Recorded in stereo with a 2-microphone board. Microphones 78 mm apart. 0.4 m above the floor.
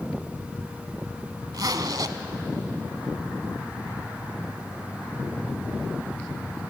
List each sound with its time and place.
1.5 s a zipper: 60° right (ahead or behind), 0.8 m